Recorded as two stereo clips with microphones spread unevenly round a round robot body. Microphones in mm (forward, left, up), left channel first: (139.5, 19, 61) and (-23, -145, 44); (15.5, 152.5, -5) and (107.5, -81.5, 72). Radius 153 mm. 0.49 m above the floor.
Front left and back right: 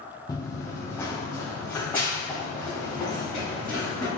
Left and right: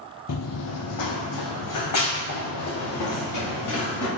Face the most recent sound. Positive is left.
turn(degrees=130)